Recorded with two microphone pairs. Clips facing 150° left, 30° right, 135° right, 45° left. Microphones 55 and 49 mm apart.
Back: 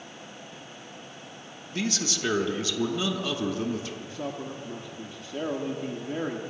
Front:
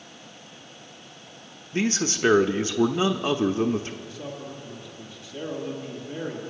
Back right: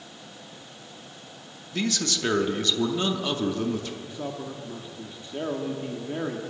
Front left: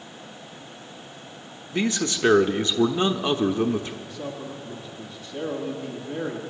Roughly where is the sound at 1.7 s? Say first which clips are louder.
Front 5 dB, front left 3 dB; ahead.